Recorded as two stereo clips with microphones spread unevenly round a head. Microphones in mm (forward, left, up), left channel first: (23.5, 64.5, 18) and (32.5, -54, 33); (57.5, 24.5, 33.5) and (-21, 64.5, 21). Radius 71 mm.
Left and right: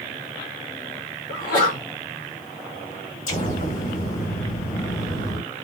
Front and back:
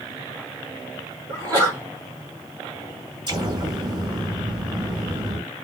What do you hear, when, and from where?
1.3 s a sneeze: 120° left, 1.7 m
3.3 s an explosion: 120° left, 1.9 m